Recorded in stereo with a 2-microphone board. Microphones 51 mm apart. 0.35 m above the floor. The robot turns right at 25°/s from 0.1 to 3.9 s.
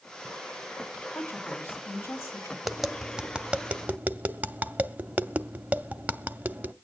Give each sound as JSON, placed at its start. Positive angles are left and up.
{"t": 1.1, "sound": "a woman speaking", "azimuth_deg": 75, "distance_m": 2.5}
{"t": 2.6, "sound": "tapping", "side_deg": 0, "distance_m": 0.6}